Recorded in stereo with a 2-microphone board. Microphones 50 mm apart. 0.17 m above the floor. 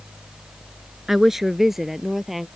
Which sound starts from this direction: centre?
A woman speaking, at 1.1 s.